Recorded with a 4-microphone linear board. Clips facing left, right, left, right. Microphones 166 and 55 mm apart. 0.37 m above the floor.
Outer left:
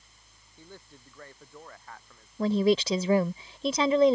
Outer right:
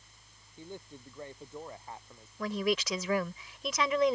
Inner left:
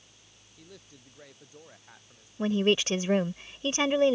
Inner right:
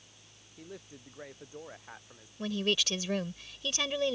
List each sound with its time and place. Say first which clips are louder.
0.6 s a man speaking: outer right 5 dB, inner right 5 dB; 20° right (ahead or behind); by 2.3 s 25° right (ahead or behind)
2.4 s a woman speaking: outer left 8 dB, inner left 7 dB; 30° left (ahead or behind)